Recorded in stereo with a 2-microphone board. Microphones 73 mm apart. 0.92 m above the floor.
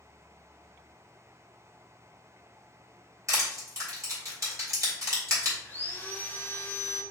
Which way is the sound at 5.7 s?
25° left (ahead or behind).